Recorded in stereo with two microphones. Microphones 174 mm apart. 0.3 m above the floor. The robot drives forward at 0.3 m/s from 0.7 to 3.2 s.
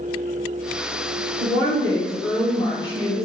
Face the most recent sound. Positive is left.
turn(degrees=25)  # may be behind; listen again after turning